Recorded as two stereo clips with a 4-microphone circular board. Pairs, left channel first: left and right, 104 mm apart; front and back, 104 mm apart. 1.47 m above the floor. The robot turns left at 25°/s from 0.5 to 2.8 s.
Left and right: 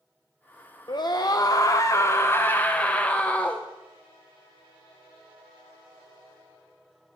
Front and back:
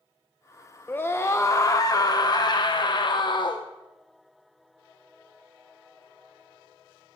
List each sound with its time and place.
0.9 s a scream: 65° left, 0.6 m; by 3.6 s 15° left, 0.6 m